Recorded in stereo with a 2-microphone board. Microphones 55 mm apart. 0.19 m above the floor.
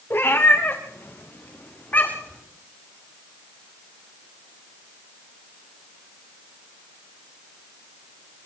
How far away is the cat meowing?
About 6 m.